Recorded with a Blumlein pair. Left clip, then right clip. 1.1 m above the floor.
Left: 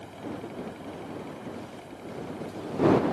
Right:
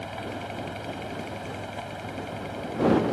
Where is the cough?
No cough in this recording.